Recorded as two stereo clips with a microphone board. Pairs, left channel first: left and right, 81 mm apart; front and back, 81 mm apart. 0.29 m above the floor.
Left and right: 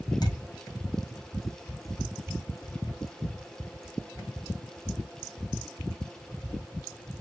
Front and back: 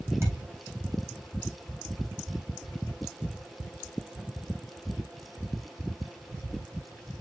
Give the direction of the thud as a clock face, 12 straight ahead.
8 o'clock.